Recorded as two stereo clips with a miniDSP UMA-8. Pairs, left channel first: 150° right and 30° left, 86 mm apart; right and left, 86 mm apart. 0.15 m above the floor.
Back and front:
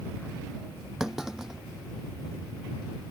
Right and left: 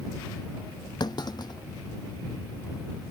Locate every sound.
1.0 s a clunk: 55° right